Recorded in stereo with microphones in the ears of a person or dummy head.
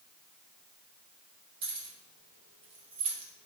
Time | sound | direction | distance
1.6 | keys jangling | 35° right (ahead or behind) | 2.5 m